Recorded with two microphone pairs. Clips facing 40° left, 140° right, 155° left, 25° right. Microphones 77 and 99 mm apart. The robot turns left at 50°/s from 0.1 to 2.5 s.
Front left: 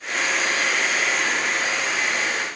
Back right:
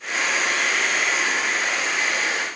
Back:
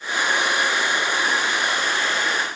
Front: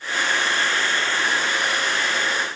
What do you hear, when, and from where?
Only background noise.